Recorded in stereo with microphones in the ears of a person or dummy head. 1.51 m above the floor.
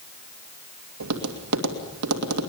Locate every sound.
1.0 s tapping: 85° right, 2.5 m